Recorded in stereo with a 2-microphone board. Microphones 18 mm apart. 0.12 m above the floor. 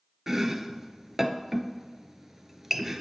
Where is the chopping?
20° right (ahead or behind), 0.7 m.